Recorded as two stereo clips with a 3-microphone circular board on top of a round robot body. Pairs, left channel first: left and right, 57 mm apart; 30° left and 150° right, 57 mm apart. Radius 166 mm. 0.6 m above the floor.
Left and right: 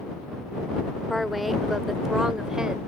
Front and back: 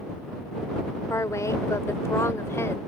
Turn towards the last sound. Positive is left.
turn(degrees=-10)